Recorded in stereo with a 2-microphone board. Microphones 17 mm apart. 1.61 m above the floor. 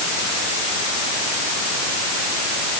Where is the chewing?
No chewing in this recording.